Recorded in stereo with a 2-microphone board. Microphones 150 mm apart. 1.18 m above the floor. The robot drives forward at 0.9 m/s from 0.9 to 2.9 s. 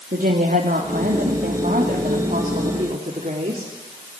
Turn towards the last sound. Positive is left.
turn(degrees=-50)  # may be behind; listen again after turning